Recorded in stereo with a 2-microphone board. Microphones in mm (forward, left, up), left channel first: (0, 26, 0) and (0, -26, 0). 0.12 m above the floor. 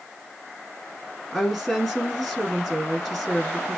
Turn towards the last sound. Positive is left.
turn(degrees=-5)  # may be behind; listen again after turning